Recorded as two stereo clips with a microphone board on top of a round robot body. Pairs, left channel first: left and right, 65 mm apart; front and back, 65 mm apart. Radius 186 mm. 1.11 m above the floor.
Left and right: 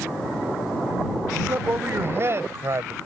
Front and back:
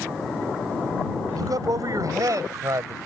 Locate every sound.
1.4 s a man speaking: 150° right; by 3.0 s 140° right